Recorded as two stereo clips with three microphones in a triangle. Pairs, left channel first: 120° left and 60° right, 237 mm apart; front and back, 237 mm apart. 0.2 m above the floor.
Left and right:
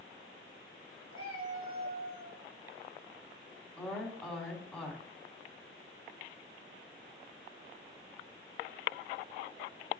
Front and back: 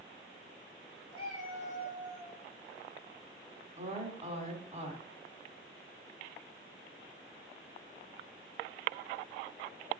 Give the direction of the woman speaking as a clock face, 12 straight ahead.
5 o'clock.